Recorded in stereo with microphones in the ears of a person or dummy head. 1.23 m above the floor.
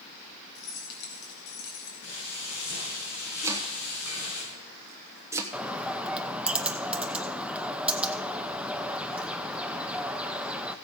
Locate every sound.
0.6 s keys jangling: 55° left (ahead or behind), 3.5 m
2.0 s frying: 80° left, 5.5 m
3.4 s chopping: 10° right (ahead or behind), 1.1 m
5.5 s a bird: 5° right (ahead or behind), 0.5 m